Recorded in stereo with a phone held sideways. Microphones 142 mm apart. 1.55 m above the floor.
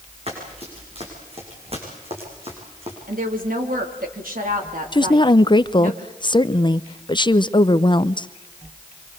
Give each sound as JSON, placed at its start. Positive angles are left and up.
{"t": 0.3, "sound": "running footsteps", "side_deg": -45, "distance_m": 8.5}
{"t": 3.1, "sound": "a woman speaking", "side_deg": -80, "distance_m": 3.5}
{"t": 4.9, "sound": "a woman speaking", "side_deg": 35, "distance_m": 0.6}